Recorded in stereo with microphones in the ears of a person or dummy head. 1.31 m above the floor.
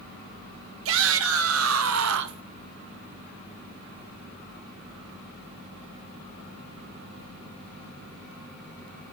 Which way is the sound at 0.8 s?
70° right (ahead or behind).